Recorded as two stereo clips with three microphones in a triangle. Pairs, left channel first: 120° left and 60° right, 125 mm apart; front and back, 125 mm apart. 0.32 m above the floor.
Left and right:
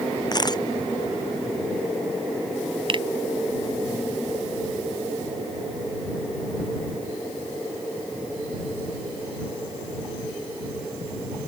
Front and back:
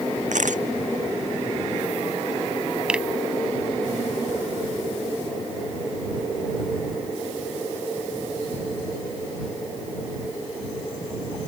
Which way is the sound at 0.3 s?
175° left.